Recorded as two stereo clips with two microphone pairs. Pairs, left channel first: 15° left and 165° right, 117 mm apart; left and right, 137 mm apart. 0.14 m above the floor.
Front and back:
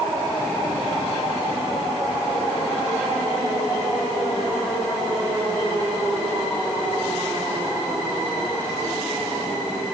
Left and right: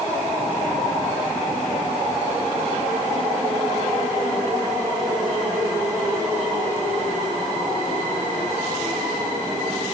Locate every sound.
Only background noise.